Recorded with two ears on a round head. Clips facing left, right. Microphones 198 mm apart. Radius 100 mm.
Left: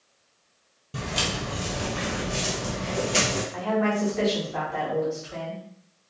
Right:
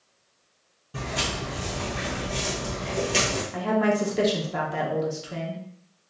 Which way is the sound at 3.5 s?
45° right (ahead or behind).